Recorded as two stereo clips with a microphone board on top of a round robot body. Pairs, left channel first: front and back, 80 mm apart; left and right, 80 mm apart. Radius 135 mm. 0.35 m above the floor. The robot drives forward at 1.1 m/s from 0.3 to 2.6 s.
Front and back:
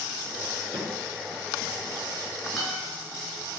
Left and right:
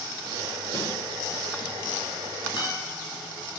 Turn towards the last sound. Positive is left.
turn(degrees=80)